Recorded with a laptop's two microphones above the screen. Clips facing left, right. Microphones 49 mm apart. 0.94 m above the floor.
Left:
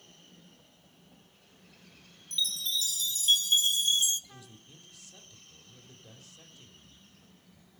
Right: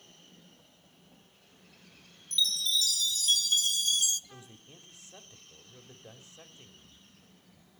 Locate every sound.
2.3 s a chime: 30° left (ahead or behind), 1.1 m
4.3 s a man speaking: 30° right (ahead or behind), 3.5 m